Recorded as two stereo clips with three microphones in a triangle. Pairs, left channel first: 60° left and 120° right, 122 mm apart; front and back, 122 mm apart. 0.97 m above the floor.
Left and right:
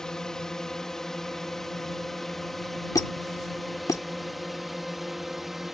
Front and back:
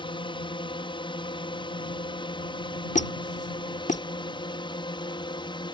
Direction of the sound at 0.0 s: 25° right.